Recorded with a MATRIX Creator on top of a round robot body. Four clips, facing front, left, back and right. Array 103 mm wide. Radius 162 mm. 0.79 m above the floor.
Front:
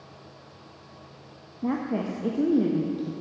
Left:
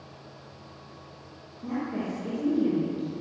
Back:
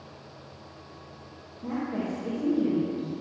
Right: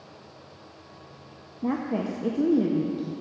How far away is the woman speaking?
About 1.0 m.